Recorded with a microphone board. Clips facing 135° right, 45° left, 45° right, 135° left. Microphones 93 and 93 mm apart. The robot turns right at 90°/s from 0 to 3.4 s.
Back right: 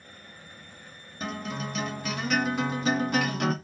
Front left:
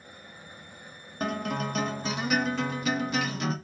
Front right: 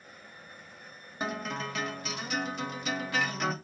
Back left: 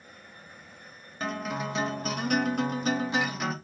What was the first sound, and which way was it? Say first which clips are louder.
A guitar: front left 4 dB, back left 2 dB; 25° left.